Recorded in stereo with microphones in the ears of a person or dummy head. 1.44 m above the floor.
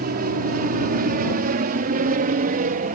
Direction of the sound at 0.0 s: 45° right (ahead or behind).